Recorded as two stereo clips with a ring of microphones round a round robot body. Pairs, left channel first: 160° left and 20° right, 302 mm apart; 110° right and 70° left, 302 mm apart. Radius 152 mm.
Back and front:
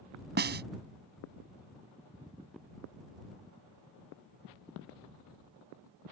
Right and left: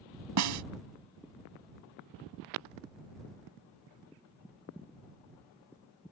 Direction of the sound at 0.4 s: 35° left.